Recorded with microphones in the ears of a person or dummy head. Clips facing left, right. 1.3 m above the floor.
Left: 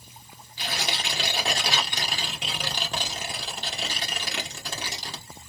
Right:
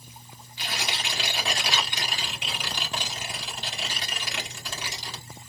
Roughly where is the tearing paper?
Left.